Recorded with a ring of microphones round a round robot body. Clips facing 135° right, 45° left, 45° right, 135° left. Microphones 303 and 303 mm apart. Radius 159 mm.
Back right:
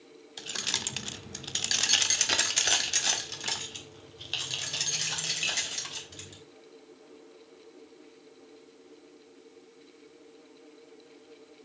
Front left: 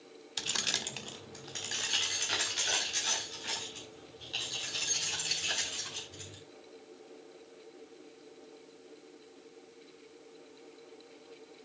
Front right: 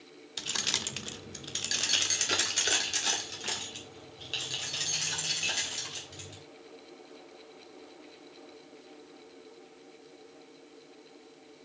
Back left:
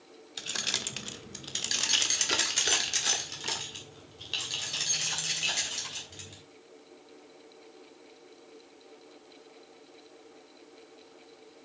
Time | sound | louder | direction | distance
0.4 | keys jangling | even, front right 1 dB | 25° left | 0.5 m